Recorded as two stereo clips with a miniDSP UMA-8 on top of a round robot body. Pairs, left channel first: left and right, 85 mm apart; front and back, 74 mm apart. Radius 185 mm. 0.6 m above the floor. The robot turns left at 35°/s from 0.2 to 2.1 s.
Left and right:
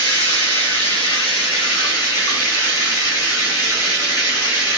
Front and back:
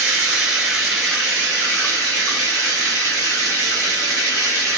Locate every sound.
0.0 s running water: 115° left, 1.9 m; by 4.8 s 45° left, 1.9 m